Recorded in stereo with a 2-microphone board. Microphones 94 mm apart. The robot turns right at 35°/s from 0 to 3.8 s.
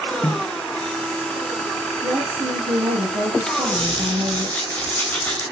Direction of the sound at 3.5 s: 5° left (ahead or behind).